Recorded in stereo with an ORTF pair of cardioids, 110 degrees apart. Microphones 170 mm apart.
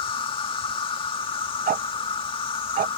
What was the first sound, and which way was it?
An insect, 30° left.